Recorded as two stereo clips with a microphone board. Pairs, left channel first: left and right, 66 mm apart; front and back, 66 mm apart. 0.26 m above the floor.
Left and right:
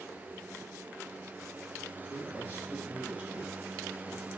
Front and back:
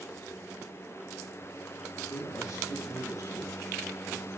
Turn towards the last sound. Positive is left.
turn(degrees=-20)